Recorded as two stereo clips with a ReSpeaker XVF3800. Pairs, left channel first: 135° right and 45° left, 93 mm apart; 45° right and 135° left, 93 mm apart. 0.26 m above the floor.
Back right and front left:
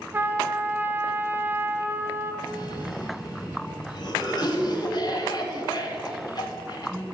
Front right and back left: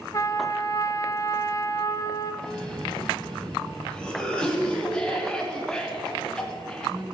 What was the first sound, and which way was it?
A trumpet, 10° right.